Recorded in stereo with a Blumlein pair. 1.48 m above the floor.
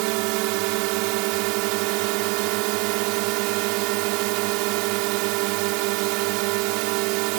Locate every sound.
0.0 s a drone: 45° right